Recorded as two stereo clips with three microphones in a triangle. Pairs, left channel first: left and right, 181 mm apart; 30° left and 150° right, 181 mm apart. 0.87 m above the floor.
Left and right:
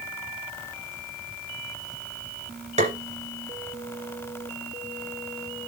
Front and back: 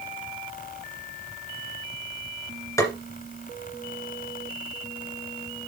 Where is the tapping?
40° right, 2 m.